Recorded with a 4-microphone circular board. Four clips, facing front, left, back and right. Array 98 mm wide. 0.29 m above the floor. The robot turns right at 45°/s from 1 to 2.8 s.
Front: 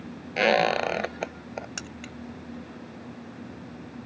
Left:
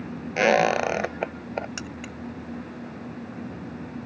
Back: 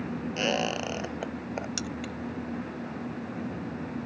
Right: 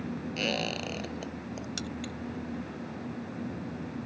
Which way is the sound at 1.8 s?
70° left.